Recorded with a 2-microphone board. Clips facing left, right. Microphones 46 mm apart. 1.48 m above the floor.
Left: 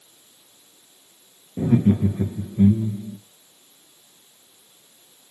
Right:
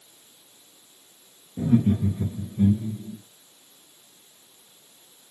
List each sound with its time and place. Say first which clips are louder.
1.6 s laughter: left 3 dB; 45° left (ahead or behind), 0.5 m; by 3.2 s 60° left (ahead or behind), 1.2 m